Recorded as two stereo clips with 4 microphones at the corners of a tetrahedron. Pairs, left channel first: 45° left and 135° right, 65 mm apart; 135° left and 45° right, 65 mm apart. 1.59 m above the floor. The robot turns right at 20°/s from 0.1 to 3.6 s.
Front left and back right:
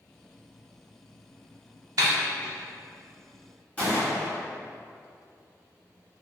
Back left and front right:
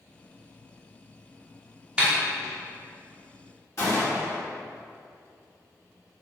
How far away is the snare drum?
About 0.6 m.